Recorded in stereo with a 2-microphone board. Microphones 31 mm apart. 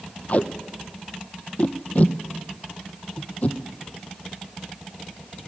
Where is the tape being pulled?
50° left (ahead or behind), 0.7 m.